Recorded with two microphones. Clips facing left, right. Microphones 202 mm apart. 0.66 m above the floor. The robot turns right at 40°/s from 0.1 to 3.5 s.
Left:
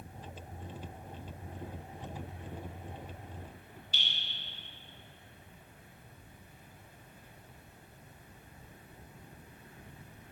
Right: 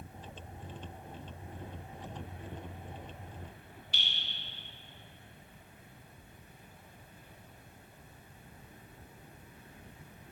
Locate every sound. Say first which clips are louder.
3.9 s dripping: even; 70° right (ahead or behind), 2.5 m